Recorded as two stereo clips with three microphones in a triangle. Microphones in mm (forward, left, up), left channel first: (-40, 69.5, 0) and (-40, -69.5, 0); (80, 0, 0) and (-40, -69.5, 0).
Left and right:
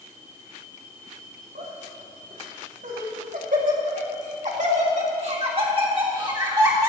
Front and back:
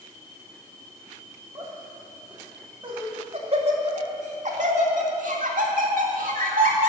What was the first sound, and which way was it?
Laughter, 90° right.